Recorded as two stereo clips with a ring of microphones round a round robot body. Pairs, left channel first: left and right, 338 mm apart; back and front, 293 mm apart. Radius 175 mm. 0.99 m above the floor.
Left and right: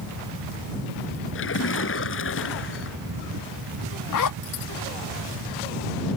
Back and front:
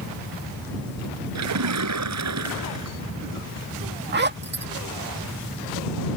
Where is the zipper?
55° left.